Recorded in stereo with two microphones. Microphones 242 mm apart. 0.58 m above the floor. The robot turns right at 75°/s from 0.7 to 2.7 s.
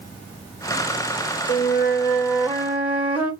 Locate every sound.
1.5 s a flute: 95° left, 1.3 m; by 3.3 s 175° right, 1.3 m